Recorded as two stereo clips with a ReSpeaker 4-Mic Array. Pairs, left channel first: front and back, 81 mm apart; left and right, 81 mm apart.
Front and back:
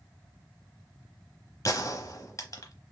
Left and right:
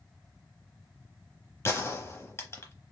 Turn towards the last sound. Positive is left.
turn(degrees=40)